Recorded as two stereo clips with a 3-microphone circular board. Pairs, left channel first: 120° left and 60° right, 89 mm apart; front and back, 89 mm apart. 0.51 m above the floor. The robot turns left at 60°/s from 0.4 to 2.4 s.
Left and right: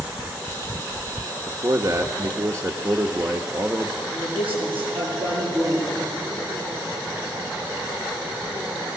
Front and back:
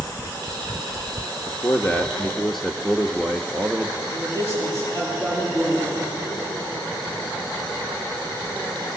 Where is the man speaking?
30° right, 1.0 m; by 4.0 s 85° right, 1.0 m.